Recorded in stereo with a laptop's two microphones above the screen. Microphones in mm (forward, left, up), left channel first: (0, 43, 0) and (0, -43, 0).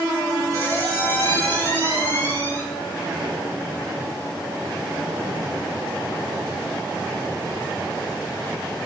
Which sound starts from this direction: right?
A squeak, at 0.5 s.